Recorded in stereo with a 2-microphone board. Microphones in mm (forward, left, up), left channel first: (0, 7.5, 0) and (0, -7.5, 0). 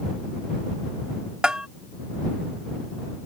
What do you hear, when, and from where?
1.4 s a bell: 55° right (ahead or behind)